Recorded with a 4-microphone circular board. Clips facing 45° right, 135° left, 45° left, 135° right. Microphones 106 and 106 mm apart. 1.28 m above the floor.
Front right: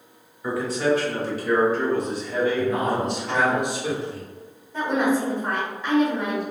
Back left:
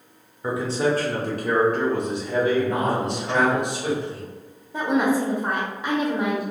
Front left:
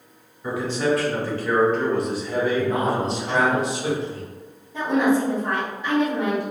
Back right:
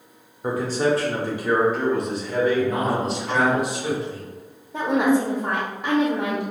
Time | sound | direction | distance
0.4 | a man speaking | 160° right | 0.7 m
2.6 | a man speaking | 105° left | 1.9 m
4.7 | a woman speaking | 165° right | 0.7 m